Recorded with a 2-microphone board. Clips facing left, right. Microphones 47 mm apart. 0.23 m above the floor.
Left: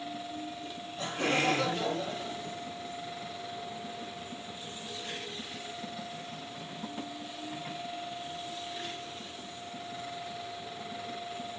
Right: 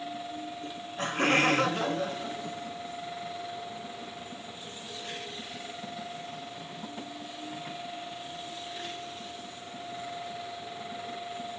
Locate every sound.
0.6 s laughter: 50° right (ahead or behind), 2 m